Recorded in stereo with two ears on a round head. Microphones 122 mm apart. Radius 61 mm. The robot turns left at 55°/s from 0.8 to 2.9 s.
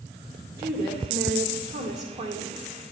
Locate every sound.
0.6 s a woman speaking: 35° right, 2 m; by 2.6 s 135° right, 2 m